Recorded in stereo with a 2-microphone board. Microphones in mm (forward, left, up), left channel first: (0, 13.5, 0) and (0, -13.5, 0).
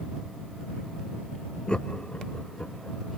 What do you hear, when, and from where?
1.7 s laughter: 35° left (ahead or behind); by 3.0 s 70° left (ahead or behind)